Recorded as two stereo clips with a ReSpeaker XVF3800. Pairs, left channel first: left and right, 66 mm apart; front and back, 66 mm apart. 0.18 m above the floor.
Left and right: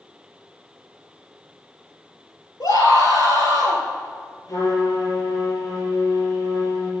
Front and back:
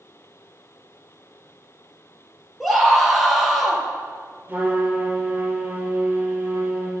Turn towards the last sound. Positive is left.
turn(degrees=115)